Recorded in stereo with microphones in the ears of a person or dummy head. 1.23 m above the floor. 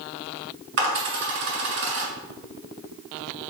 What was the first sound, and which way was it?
A dropped coin, 60° right (ahead or behind).